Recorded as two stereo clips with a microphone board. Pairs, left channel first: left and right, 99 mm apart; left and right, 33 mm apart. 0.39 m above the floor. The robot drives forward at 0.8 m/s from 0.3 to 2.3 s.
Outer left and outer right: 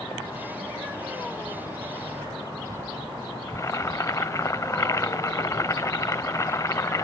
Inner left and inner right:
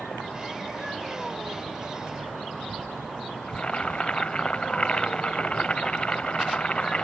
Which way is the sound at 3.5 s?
30° left (ahead or behind).